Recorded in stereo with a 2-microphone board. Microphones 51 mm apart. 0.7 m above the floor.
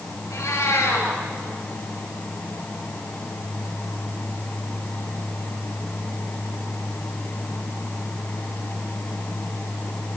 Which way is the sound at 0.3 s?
80° left.